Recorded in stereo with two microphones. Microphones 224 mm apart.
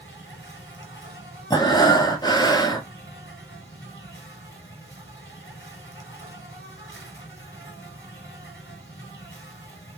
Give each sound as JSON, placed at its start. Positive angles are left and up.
{"t": 0.0, "sound": "an insect", "side_deg": 60, "distance_m": 1.4}
{"t": 1.5, "sound": "breathing", "side_deg": 20, "distance_m": 0.7}